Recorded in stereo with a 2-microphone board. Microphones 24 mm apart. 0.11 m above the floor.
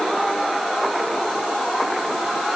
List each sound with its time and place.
Only background noise.